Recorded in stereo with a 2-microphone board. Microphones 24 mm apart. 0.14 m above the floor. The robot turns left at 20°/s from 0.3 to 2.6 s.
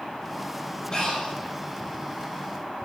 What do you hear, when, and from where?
0.9 s breathing: 30° left (ahead or behind), 1.6 m; by 1.4 s 35° left (ahead or behind), 1.6 m